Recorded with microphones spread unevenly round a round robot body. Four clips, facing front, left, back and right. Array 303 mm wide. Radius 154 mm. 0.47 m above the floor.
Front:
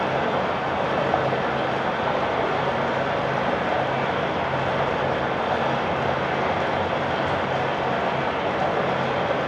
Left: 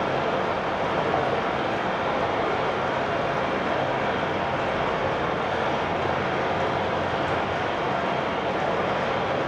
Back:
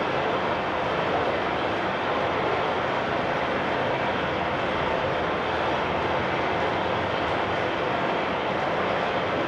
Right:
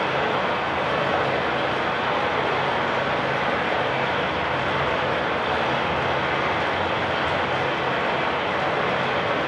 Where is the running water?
10° left, 1.5 m.